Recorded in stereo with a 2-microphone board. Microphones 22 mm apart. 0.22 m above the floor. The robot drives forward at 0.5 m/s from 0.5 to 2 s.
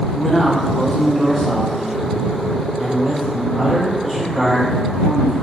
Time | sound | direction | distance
0.1 | a man speaking | 15° left (ahead or behind) | 1.1 m